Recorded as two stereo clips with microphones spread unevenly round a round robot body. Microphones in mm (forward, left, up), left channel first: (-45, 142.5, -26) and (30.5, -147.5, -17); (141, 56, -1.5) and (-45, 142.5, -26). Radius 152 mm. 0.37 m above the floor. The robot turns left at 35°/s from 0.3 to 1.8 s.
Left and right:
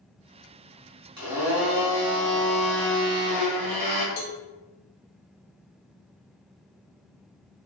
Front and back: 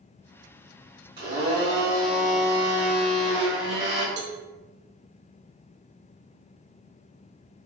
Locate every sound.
1.2 s a blender: 150° right, 1.7 m; by 4.1 s 170° right, 1.7 m
4.2 s a cowbell: 130° left, 0.6 m